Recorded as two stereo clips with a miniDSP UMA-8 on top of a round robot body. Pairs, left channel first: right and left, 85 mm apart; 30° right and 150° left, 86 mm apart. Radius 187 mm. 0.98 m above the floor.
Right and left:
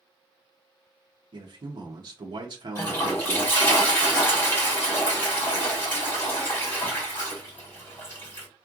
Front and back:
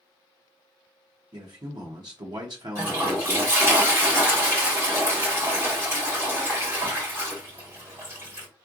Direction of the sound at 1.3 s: 120° left.